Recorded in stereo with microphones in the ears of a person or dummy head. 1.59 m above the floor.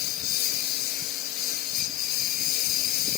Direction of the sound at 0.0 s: 55° left (ahead or behind).